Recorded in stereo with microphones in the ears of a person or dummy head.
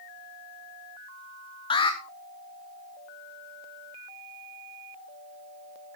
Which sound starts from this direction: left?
An alarm, at 1.7 s.